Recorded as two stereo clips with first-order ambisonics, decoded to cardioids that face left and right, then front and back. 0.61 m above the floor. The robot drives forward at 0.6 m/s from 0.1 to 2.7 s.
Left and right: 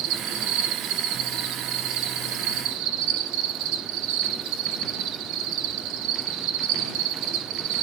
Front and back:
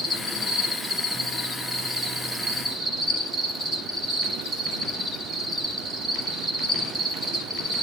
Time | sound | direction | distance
0.0 | an insect | 85° right | 5.5 m